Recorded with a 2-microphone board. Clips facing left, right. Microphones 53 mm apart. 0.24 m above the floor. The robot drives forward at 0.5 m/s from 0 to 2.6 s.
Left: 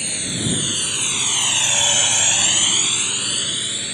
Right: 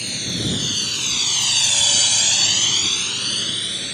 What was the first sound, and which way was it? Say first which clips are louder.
A drone: even; 15° left (ahead or behind).